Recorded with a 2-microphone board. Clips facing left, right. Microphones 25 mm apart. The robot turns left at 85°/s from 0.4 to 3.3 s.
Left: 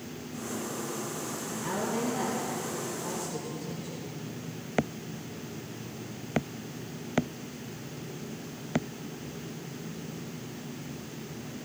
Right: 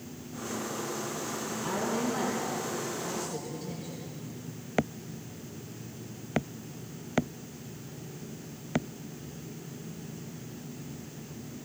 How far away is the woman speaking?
About 3.5 m.